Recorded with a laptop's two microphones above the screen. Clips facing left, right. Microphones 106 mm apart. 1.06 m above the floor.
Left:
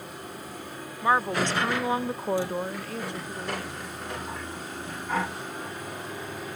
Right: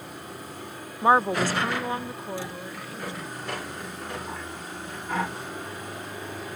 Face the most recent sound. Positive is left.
turn(degrees=75)  # may be behind; listen again after turning